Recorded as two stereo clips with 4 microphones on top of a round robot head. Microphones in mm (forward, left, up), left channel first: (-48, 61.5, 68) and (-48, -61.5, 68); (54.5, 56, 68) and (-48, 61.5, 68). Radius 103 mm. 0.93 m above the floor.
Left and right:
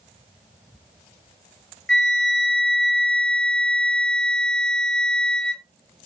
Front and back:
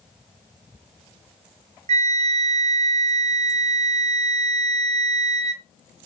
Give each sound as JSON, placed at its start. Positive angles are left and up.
{"t": 1.9, "sound": "a flute", "azimuth_deg": 170, "distance_m": 1.8}